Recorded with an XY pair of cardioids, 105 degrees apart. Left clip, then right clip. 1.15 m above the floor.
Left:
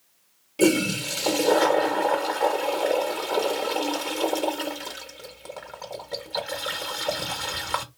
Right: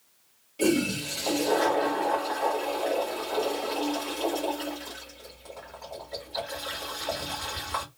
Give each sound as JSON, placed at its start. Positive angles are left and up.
{"t": 0.6, "sound": "a toilet flushing", "azimuth_deg": 70, "distance_m": 1.1}